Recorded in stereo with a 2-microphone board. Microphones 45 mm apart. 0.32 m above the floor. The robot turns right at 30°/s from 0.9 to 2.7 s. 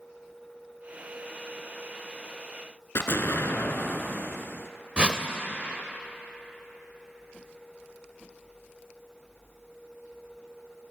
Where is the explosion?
70° left (ahead or behind), 0.7 m.